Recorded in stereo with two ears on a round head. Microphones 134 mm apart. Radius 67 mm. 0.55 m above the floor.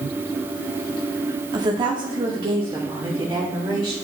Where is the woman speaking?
25° right (ahead or behind), 0.7 m.